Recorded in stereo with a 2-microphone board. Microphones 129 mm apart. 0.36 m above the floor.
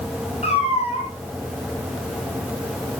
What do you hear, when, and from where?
0.4 s a cat meowing: 50° left (ahead or behind), 4.5 m